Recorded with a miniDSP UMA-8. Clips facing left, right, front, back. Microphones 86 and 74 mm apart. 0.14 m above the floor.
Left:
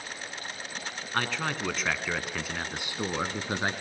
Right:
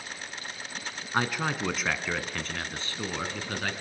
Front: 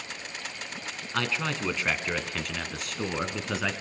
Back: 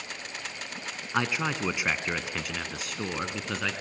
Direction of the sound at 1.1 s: 145° right.